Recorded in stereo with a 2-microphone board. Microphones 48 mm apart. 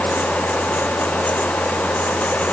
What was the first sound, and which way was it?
Only background noise.